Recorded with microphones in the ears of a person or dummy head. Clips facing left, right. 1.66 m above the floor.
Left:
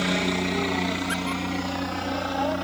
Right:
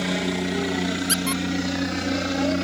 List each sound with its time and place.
0.0 s a helicopter: centre (ahead or behind); by 2.6 s 30° right (ahead or behind)
1.1 s a squeak: 60° right (ahead or behind)